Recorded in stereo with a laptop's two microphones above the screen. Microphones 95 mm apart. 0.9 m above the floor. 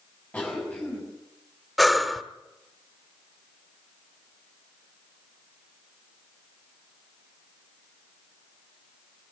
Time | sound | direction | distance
0.3 | a cough | 15° left (ahead or behind) | 7 m
1.8 | breathing | centre (ahead or behind) | 1.3 m